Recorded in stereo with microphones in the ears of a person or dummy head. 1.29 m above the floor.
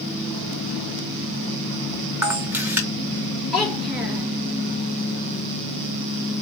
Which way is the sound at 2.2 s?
10° right (ahead or behind).